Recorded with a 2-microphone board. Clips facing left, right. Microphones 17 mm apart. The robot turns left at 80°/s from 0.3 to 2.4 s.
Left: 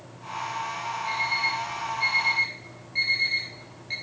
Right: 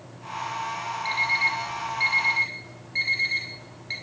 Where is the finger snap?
No finger snap in this recording.